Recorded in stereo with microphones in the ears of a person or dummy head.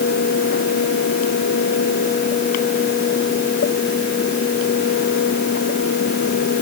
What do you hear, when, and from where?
Only background noise.